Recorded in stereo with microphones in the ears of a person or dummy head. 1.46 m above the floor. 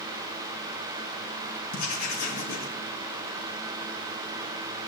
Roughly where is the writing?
Left.